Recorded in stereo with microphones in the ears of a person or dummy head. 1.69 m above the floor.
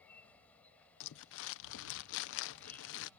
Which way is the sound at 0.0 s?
5° left (ahead or behind).